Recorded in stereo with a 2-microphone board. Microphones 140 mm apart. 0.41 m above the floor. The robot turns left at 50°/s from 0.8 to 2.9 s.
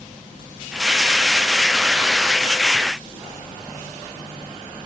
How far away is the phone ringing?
I don't hear a phone ringing.